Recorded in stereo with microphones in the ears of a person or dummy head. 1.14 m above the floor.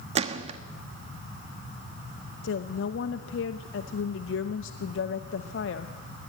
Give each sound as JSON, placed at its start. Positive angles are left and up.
{"t": 0.1, "sound": "a gunshot", "side_deg": -35, "distance_m": 1.1}
{"t": 2.4, "sound": "a woman speaking", "side_deg": 80, "distance_m": 0.8}